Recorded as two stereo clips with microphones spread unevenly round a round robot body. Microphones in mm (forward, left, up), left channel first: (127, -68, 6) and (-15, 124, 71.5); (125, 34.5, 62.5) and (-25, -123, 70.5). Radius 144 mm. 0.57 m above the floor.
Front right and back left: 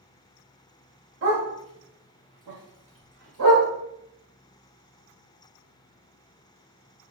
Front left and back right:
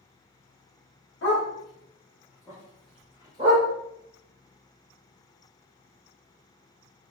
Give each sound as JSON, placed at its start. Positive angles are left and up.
{"t": 1.2, "sound": "a dog barking", "azimuth_deg": 90, "distance_m": 1.5}